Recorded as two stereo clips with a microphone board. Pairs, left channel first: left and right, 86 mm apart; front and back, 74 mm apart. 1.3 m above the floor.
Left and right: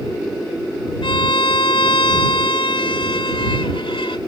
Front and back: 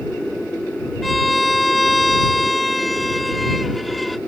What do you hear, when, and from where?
1.0 s a violin: 90° left